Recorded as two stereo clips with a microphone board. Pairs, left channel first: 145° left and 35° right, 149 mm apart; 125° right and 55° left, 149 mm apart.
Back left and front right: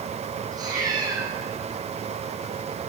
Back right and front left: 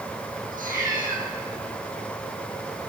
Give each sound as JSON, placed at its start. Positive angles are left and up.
{"t": 0.5, "sound": "a cat meowing", "azimuth_deg": 30, "distance_m": 6.0}